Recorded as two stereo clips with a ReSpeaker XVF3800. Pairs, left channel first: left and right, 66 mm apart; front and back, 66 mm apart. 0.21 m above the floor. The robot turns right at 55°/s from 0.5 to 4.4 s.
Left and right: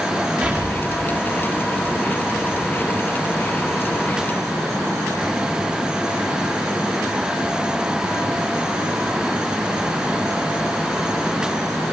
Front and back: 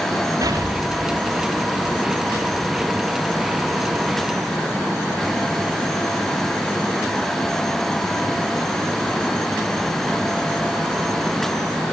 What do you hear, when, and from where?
0.4 s an explosion: 155° right, 5.5 m; by 1.9 s 75° right, 5.5 m